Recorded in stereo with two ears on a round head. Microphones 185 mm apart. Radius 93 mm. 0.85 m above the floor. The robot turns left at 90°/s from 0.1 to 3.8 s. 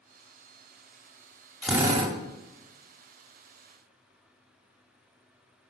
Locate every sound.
1.6 s a drill: 5° left, 1.8 m; by 2.1 s 45° right, 1.8 m